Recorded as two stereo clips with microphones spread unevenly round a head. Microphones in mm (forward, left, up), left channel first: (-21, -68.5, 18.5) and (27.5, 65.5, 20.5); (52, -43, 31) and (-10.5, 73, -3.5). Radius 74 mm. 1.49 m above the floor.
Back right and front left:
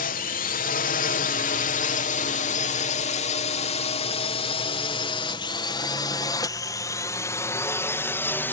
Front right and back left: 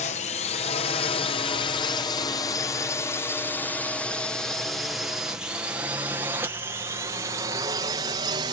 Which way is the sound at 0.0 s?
105° right.